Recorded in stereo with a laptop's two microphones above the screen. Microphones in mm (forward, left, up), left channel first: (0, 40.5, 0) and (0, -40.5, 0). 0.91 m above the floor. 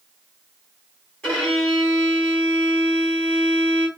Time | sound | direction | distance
1.2 | a violin | 15° left (ahead or behind) | 1.3 m